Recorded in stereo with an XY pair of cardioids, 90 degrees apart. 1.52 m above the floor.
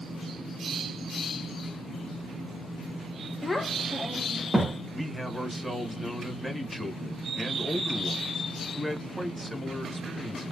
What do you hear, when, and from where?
3.4 s a child speaking: 25° left, 1.1 m; by 4.8 s 20° right, 0.9 m
4.9 s a man speaking: straight ahead, 1.4 m